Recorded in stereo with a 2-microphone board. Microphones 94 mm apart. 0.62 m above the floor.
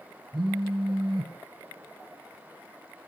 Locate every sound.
0.3 s a phone buzzing: 60° right (ahead or behind), 0.8 m